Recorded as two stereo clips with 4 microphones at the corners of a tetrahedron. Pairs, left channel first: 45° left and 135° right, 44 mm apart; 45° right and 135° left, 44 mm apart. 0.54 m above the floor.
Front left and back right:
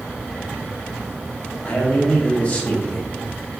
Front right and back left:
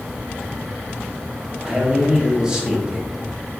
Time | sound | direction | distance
1.6 | a man speaking | 75° left | 1.0 m